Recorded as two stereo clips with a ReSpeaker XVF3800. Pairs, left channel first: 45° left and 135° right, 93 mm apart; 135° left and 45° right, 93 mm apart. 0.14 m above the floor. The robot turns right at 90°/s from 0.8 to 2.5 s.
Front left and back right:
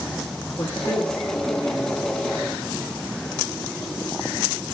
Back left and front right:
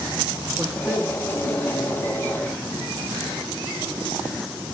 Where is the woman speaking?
20° right, 1.2 m; by 2.6 s 135° left, 1.2 m.